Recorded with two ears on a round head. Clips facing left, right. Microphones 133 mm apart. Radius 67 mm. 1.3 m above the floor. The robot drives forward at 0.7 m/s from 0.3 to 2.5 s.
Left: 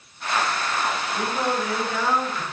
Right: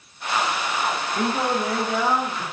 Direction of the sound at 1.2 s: 25° right (ahead or behind).